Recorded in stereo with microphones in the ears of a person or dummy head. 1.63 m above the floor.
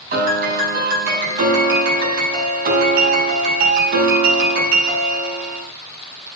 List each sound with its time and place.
0.1 s a piano: 55° right (ahead or behind), 4 m